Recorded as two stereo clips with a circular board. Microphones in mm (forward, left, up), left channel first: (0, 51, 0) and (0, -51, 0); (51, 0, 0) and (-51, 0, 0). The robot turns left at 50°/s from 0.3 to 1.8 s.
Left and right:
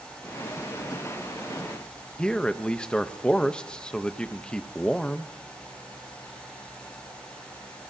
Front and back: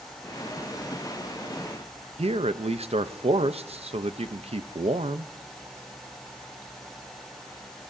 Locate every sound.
2.2 s a man speaking: 170° left, 0.7 m